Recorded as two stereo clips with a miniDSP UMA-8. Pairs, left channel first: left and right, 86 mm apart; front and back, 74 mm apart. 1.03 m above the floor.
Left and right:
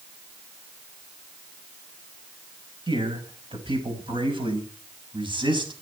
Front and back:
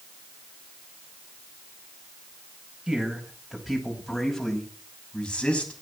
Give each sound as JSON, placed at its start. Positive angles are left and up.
{"t": 2.9, "sound": "a man speaking", "azimuth_deg": -100, "distance_m": 5.5}